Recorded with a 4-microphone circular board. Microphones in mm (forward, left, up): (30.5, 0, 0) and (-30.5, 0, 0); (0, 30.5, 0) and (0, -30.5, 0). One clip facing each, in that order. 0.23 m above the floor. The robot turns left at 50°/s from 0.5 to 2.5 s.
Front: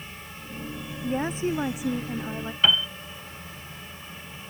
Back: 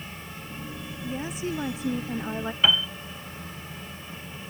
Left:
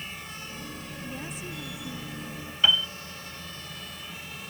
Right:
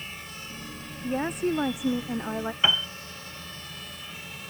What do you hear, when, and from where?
1.0 s a woman speaking: 40° right; by 2.5 s 115° right
2.6 s a piano: 100° right